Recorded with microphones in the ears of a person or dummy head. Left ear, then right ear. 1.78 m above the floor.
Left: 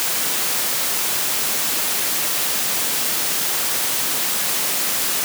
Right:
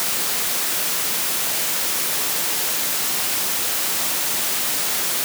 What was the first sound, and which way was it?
Only background noise.